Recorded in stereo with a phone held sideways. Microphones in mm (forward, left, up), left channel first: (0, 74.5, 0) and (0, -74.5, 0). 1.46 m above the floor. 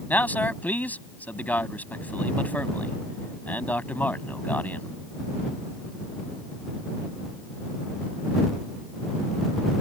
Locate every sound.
0.1 s a man speaking: 10° left (ahead or behind)